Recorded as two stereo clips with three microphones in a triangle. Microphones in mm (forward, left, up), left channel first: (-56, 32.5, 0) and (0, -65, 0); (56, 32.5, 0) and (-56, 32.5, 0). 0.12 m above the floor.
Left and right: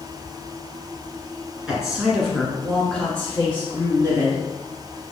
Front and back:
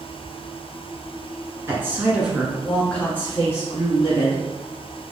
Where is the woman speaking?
135° right, 1.4 m; by 4.4 s 45° left, 2 m.